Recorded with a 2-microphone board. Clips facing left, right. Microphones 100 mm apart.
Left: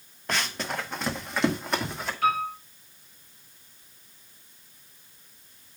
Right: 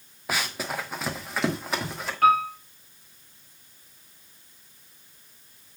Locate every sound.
0.3 s running footsteps: 10° right (ahead or behind), 0.9 m; by 2.1 s centre (ahead or behind), 2 m
2.2 s a piano: 55° right (ahead or behind), 3 m